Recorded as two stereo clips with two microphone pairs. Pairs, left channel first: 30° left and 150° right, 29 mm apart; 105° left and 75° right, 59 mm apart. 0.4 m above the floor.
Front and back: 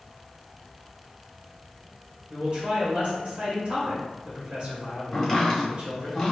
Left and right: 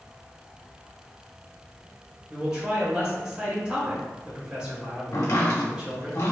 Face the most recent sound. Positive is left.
turn(degrees=120)